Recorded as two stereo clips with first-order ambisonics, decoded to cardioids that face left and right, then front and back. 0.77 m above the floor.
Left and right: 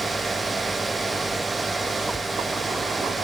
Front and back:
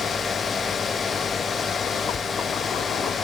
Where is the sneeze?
No sneeze in this recording.